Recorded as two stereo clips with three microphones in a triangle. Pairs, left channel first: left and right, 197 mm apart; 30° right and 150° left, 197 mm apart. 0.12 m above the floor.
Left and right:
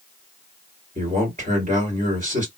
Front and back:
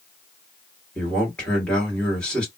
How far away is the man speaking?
About 2 m.